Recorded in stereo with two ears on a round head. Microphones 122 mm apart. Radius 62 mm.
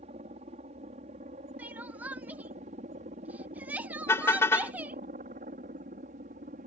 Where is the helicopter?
45° right (ahead or behind); by 6.7 s 60° right (ahead or behind).